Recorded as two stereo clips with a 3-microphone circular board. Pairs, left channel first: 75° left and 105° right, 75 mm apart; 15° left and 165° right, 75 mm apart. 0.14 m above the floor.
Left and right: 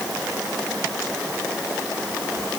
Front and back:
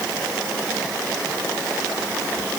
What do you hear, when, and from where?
Only background noise.